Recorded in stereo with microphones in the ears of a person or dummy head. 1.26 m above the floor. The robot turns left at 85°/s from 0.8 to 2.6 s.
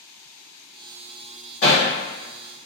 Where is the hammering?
50° left (ahead or behind), 1.8 m; by 1.9 s 70° left (ahead or behind), 1.8 m.